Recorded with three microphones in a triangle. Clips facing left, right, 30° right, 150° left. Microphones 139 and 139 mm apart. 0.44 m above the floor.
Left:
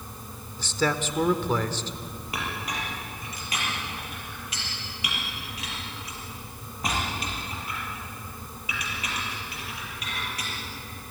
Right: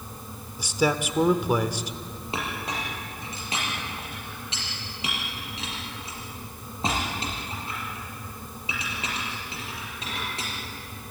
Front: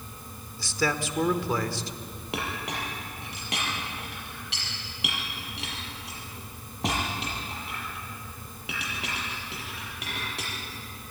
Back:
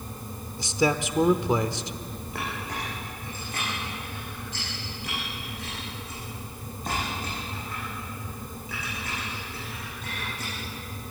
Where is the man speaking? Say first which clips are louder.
Right 2 dB, back 4 dB; 155° right, 1.0 m.